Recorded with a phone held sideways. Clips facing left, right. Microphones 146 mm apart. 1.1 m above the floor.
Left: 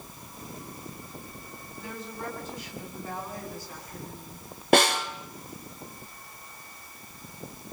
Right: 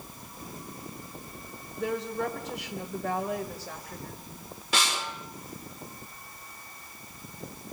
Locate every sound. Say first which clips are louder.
1.8 s a woman speaking: right 9 dB; 75° right (ahead or behind), 4.5 m
4.7 s a snare drum: left 10 dB; 60° left (ahead or behind), 2.5 m